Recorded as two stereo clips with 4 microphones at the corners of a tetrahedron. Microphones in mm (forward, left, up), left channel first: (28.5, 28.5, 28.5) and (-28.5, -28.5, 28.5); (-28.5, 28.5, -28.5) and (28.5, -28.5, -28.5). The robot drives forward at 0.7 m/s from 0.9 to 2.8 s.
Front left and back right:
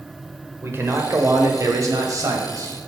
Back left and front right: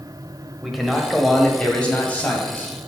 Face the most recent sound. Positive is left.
turn(degrees=-165)